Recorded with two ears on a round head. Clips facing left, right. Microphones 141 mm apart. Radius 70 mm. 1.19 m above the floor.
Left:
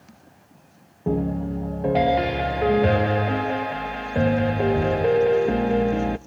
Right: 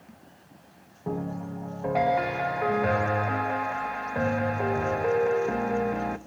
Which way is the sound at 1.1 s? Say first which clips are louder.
Left 8 dB; 30° left (ahead or behind).